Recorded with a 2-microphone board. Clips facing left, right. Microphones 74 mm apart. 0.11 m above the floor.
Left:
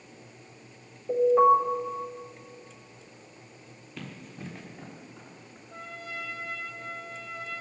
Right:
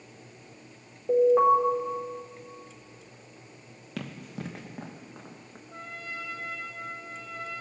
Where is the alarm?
30° right (ahead or behind), 4.5 m.